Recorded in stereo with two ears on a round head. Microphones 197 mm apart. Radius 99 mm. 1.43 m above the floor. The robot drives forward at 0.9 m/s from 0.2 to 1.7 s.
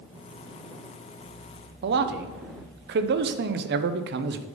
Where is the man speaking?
50° right (ahead or behind), 0.5 m.